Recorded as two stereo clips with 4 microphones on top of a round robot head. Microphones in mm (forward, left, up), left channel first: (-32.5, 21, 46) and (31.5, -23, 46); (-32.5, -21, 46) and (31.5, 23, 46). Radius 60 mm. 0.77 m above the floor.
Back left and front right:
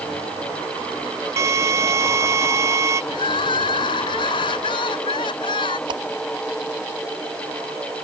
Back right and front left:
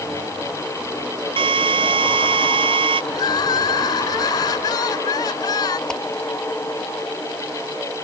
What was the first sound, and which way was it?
A drill, 20° left.